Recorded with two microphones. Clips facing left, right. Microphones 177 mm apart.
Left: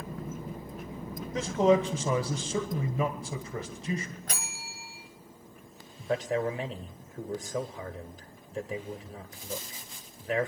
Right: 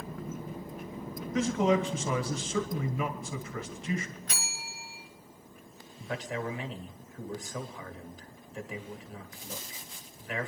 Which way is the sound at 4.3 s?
45° left (ahead or behind).